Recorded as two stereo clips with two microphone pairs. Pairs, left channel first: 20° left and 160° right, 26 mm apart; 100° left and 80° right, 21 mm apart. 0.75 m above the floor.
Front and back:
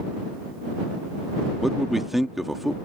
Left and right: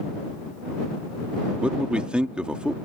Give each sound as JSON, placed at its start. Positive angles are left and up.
{"t": 1.6, "sound": "a man speaking", "azimuth_deg": -80}